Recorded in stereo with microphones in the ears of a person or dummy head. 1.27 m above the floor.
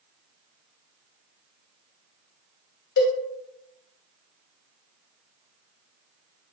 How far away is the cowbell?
About 0.6 m.